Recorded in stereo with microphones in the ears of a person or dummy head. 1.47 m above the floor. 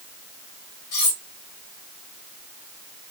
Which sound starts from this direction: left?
Cutlery clinking, at 0.9 s.